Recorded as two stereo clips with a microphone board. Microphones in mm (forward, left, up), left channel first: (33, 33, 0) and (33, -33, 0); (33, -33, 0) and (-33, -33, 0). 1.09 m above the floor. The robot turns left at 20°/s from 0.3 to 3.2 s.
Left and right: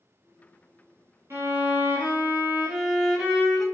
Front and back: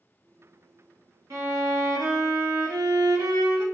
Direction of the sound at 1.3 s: 140° right.